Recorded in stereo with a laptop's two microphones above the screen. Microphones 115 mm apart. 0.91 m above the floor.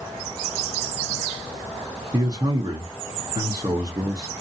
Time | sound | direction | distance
2.1 | a man speaking | 35° right (ahead or behind) | 0.7 m